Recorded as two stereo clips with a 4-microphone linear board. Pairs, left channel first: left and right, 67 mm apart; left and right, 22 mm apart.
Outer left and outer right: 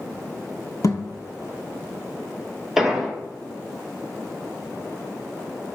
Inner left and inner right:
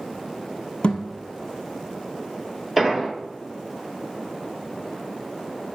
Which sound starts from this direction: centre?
An explosion, at 2.8 s.